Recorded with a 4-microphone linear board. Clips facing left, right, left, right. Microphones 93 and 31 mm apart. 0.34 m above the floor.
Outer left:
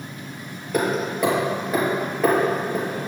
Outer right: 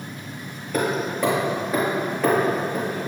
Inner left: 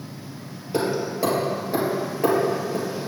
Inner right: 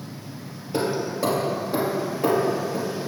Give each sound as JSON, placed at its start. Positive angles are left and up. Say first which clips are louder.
{"t": 0.7, "sound": "hammering", "louder": "outer left 1 dB, inner left 1 dB", "side_deg": 5, "distance_m": 4.0}